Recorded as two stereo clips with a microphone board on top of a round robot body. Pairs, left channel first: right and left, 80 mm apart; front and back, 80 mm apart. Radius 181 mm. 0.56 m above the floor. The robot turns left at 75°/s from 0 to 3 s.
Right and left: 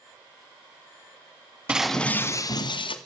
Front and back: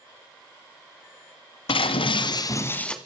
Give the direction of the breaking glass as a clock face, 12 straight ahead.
12 o'clock.